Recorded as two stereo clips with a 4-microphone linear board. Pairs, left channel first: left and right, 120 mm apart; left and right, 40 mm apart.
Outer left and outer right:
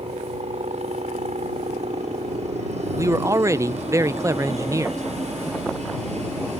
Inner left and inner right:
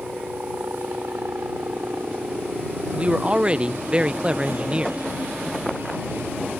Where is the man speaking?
25° right (ahead or behind).